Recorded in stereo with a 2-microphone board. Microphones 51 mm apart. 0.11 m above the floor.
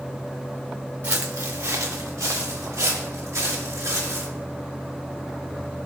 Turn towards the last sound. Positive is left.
turn(degrees=-70)  # may be behind; listen again after turning